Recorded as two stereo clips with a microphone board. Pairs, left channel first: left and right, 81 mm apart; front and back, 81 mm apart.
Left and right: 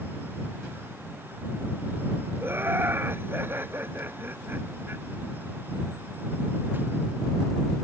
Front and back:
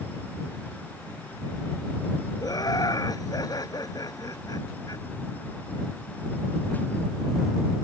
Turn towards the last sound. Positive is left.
turn(degrees=-30)